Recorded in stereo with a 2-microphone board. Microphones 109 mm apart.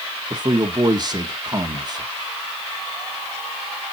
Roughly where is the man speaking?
Right.